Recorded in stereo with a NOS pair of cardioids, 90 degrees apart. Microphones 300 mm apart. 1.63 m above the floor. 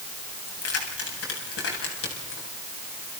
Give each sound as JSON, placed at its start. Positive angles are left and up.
{"t": 0.5, "sound": "keys jangling", "azimuth_deg": 50, "distance_m": 8.0}